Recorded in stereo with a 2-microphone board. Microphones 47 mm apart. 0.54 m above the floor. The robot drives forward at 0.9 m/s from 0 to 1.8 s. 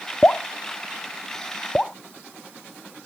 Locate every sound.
0.2 s dripping: 30° left (ahead or behind); by 2.0 s 20° left (ahead or behind)